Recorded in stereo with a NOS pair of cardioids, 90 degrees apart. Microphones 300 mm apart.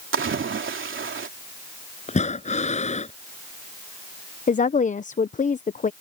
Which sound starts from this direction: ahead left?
A woman speaking, at 4.5 s.